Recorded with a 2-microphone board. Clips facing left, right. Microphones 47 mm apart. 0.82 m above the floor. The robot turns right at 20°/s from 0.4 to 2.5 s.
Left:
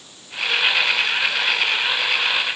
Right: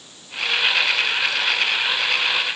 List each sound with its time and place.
Only background noise.